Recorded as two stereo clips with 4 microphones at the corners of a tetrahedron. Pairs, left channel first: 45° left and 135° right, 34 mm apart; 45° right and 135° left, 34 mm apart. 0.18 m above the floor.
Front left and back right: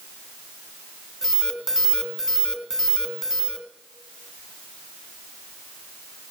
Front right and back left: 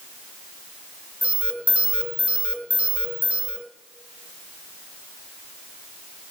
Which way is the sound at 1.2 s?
150° left.